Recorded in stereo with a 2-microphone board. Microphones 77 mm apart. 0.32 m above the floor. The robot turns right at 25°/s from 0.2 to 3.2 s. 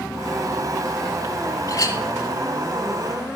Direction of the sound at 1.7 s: 45° left (ahead or behind).